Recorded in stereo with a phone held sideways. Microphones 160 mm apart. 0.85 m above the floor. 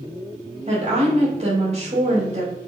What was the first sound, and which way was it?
A woman speaking, 45° right (ahead or behind).